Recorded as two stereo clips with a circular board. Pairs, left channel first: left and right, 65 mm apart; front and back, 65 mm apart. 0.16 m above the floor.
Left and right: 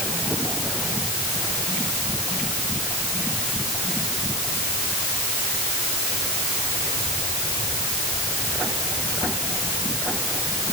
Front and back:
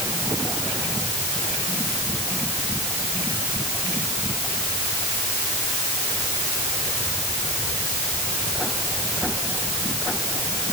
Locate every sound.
Only background noise.